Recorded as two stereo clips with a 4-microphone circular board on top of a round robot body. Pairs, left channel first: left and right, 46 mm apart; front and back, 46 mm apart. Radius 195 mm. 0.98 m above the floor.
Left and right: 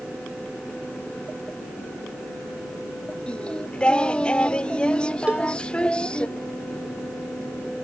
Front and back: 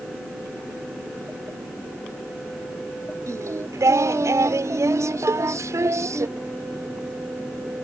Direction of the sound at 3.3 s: 160° left.